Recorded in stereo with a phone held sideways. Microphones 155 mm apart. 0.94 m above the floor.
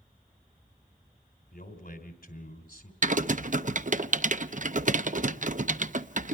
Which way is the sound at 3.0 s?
55° right (ahead or behind).